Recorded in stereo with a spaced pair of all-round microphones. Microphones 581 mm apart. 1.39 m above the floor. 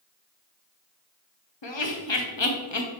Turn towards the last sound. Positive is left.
turn(degrees=50)  # may be behind; listen again after turning